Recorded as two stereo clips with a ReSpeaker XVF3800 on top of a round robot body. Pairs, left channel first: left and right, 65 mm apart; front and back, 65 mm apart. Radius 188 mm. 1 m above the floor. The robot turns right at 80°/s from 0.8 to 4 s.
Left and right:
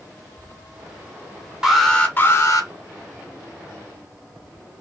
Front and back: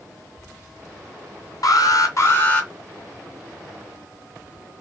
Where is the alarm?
5° right, 2.5 m; by 2.7 s 80° left, 2.5 m.